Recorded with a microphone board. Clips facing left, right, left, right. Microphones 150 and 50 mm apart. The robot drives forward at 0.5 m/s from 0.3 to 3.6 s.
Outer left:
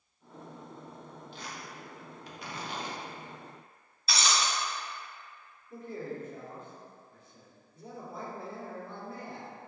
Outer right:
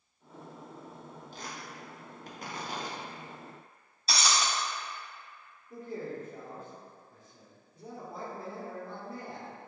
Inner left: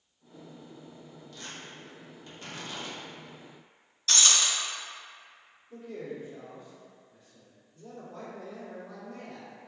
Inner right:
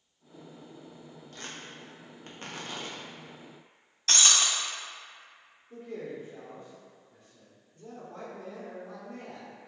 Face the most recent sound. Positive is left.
turn(degrees=-35)  # may be behind; listen again after turning